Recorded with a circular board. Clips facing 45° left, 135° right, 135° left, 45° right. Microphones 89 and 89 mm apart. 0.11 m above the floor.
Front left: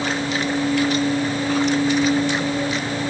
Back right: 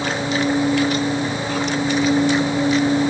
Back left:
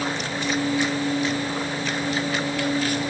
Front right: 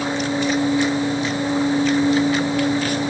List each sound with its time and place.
Only background noise.